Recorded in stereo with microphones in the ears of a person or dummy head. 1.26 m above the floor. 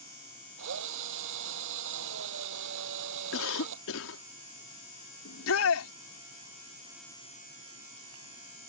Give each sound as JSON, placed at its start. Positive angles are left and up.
{"t": 0.6, "sound": "a drill", "side_deg": -75}
{"t": 3.3, "sound": "a cough", "side_deg": 85}
{"t": 5.2, "sound": "a shout", "side_deg": 85}